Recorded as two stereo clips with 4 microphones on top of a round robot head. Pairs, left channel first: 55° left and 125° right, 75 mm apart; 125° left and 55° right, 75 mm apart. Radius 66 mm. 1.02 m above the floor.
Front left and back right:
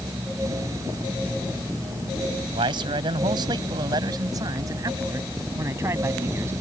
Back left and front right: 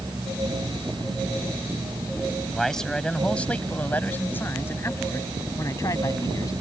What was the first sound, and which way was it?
A man speaking, 150° right.